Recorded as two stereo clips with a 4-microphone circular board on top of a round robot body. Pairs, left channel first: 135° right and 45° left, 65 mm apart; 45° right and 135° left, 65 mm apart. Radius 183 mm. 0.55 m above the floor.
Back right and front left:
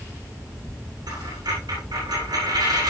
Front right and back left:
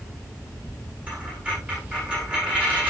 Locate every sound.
1.1 s a dropped coin: 60° left, 9.5 m